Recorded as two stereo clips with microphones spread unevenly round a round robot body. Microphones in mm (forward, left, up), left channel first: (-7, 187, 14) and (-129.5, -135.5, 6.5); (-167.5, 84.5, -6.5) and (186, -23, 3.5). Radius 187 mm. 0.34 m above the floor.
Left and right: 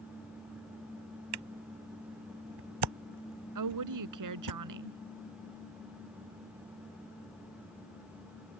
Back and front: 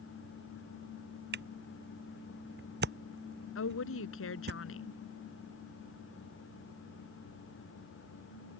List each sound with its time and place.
1.3 s a camera shutter: 80° right
3.5 s a woman speaking: 140° right